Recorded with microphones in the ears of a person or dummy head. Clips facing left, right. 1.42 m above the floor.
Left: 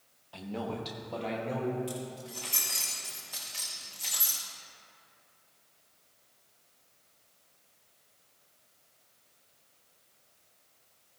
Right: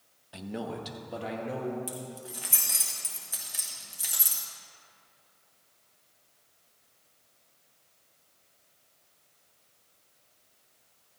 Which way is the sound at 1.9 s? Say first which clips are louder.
Left 2 dB; 20° right (ahead or behind).